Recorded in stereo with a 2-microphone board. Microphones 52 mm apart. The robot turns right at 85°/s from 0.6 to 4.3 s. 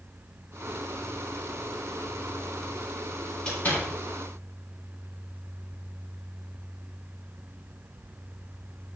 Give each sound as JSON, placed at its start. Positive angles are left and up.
{"t": 3.5, "sound": "a door slam", "side_deg": 15, "distance_m": 3.5}